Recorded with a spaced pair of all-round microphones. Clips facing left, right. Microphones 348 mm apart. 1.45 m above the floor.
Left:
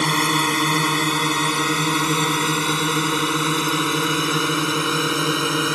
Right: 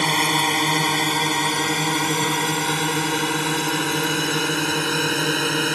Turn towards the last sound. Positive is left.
turn(degrees=10)  # may be behind; listen again after turning